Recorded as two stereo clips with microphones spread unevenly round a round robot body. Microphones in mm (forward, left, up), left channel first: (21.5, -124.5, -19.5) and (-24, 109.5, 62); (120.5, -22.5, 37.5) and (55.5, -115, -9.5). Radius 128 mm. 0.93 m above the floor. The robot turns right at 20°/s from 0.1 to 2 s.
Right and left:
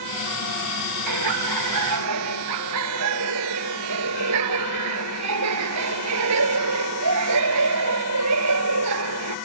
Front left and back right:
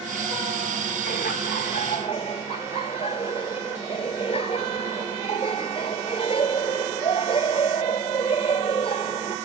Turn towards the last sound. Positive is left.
turn(degrees=125)